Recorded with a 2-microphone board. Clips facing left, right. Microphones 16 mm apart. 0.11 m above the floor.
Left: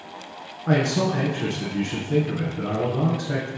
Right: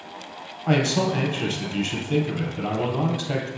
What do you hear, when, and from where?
0.7 s a man speaking: 45° right (ahead or behind), 2.5 m